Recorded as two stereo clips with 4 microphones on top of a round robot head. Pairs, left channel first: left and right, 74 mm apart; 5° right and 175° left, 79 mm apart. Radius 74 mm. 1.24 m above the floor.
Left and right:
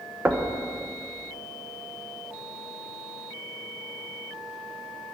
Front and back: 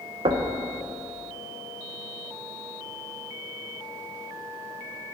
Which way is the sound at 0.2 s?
160° right.